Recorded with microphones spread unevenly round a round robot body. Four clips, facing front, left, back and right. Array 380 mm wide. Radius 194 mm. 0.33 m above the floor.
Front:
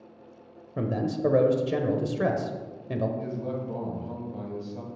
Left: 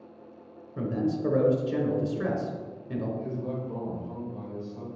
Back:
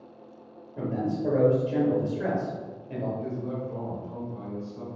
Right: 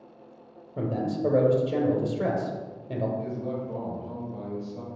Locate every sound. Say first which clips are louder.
0.8 s a man speaking: even, front 1 dB; 5° right, 1.2 m
3.2 s a man speaking: right 1 dB, even; 20° right, 2.5 m